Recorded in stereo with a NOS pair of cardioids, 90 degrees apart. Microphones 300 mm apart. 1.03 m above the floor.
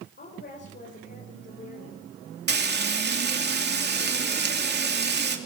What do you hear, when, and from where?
0.2 s a woman speaking: 35° left, 4.5 m
2.5 s frying: 35° right, 2.5 m